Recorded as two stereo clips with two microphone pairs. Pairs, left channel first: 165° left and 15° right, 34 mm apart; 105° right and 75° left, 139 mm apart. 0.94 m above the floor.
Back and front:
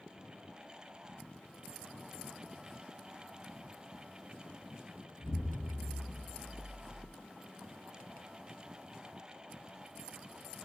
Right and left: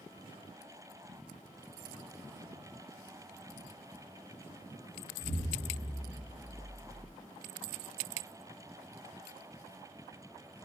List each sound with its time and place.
5.2 s an explosion: 25° right, 1.8 m